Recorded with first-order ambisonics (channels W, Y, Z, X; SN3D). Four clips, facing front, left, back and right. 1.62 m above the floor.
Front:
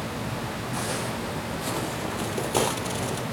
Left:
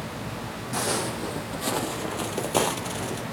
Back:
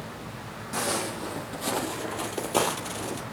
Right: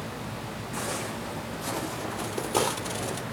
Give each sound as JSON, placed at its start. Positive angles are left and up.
{"t": 0.7, "sound": "footsteps", "azimuth_deg": 115, "distance_m": 2.5}